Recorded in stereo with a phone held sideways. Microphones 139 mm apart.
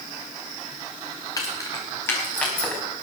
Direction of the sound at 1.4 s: 25° left (ahead or behind).